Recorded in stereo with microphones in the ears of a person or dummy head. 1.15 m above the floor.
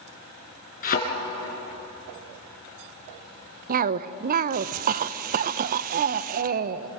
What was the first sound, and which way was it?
A thud, 50° left (ahead or behind).